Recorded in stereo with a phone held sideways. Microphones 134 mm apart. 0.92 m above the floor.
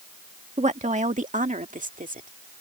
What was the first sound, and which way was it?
A woman speaking, 55° right (ahead or behind).